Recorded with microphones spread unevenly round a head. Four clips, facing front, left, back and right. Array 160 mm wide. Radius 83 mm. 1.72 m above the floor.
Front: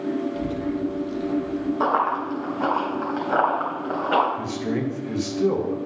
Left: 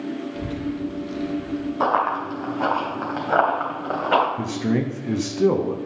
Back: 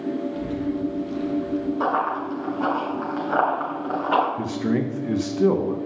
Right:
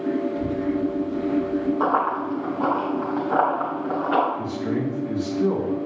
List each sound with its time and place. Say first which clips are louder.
0.3 s a child speaking: right 4 dB, even; 70° left, 2 m; by 1.7 s 125° left, 1.3 m
1.8 s running footsteps: left 1 dB, front 5 dB; 80° left, 3 m; by 4.3 s 95° left, 4.5 m
4.4 s a man speaking: left 2 dB, back 2 dB; 125° left, 1.0 m